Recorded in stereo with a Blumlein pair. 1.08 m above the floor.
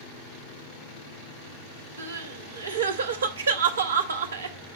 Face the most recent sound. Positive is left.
turn(degrees=-70)